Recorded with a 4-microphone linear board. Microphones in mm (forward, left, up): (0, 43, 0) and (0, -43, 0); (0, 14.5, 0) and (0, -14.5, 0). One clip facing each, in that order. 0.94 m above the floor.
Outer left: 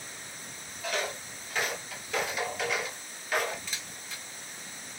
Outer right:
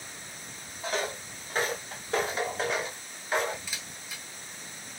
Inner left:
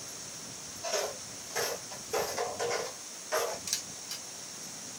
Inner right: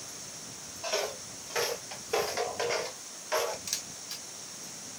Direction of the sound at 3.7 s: 5° right (ahead or behind).